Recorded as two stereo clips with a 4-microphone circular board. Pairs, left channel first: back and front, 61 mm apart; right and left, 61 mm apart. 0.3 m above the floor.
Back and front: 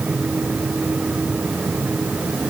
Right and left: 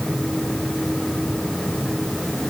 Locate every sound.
Only background noise.